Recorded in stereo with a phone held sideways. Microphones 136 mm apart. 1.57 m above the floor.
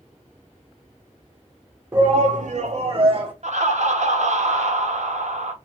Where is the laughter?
65° right (ahead or behind), 1.0 m.